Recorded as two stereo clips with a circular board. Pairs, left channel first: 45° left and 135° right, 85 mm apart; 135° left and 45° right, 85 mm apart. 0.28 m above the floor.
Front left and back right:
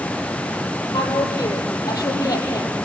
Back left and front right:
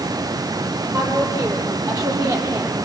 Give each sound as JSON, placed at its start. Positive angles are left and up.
{"t": 0.9, "sound": "a woman speaking", "azimuth_deg": 5, "distance_m": 9.0}